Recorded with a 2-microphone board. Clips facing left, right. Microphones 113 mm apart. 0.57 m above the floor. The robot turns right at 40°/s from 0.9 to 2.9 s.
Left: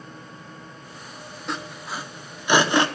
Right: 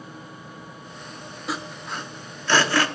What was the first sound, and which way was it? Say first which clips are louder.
Sawing: even; 5° right (ahead or behind).